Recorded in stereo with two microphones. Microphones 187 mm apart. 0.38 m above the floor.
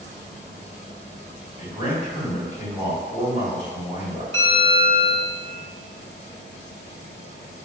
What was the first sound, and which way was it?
A man speaking, 40° left (ahead or behind).